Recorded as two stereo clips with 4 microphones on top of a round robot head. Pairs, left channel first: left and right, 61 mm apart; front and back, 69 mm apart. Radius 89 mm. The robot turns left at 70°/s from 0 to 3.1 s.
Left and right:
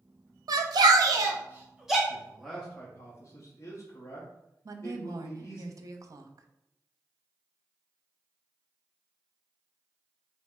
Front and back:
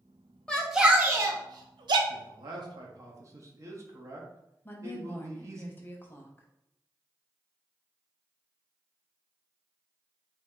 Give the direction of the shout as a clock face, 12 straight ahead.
3 o'clock.